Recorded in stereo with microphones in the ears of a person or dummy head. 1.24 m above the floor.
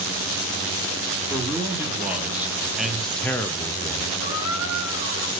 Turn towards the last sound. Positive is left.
turn(degrees=55)  # may be behind; listen again after turning